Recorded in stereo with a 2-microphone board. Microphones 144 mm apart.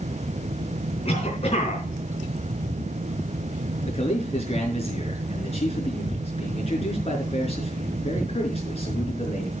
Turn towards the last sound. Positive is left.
turn(degrees=45)  # may be behind; listen again after turning